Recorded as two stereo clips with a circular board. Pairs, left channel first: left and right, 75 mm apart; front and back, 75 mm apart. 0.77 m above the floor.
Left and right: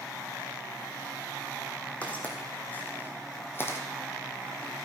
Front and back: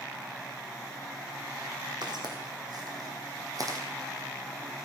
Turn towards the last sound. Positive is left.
turn(degrees=145)